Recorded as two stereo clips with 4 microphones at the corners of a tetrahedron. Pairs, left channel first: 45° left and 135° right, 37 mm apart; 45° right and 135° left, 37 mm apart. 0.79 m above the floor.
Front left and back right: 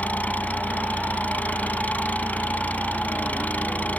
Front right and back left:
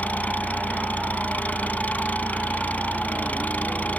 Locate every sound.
0.0 s an engine running: straight ahead